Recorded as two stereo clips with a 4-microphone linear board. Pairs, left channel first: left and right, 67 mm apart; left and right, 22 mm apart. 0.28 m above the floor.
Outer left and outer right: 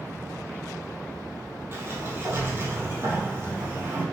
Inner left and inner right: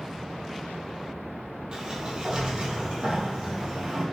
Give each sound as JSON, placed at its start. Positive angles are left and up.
{"t": 1.7, "sound": "a sliding door", "side_deg": -35, "distance_m": 3.0}